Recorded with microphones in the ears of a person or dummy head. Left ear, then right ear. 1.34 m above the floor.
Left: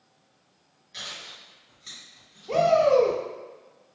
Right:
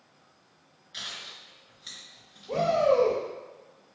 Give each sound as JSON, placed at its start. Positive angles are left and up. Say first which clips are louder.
{"t": 0.9, "sound": "chewing", "louder": "even", "side_deg": 5, "distance_m": 1.8}
{"t": 2.5, "sound": "a shout", "louder": "left 4 dB", "side_deg": 65, "distance_m": 0.8}